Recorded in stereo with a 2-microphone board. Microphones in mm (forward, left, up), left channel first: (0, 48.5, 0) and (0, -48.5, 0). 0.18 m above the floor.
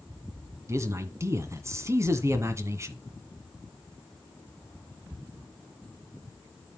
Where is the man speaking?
35° right (ahead or behind), 1.7 m.